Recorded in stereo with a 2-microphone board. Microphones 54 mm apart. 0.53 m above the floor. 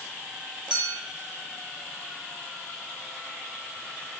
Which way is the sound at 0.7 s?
10° right (ahead or behind).